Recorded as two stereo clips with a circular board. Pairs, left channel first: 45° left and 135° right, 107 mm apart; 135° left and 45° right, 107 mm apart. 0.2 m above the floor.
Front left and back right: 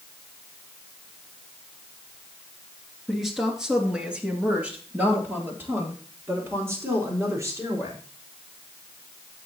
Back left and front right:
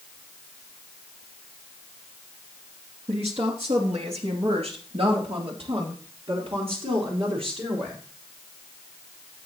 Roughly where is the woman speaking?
Ahead right.